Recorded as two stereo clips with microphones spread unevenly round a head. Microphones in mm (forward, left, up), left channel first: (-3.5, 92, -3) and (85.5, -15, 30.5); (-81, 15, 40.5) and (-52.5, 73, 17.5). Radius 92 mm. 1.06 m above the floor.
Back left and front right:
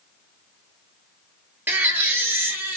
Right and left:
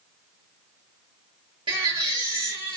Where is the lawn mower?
I don't hear a lawn mower.